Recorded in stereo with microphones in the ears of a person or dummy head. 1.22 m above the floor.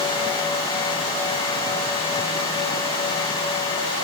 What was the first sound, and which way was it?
Only background noise.